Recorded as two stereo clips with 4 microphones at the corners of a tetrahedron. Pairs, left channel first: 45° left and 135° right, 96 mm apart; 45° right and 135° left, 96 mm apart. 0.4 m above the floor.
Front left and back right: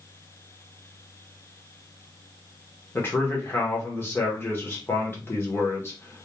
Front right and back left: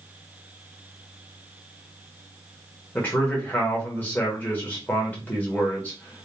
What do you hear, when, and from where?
3.0 s a man speaking: 5° left, 0.8 m